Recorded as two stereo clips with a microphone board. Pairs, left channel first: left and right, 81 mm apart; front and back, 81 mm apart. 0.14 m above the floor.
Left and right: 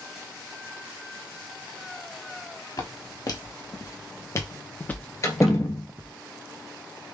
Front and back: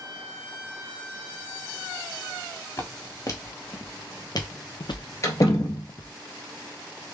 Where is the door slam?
45° left, 1.4 m.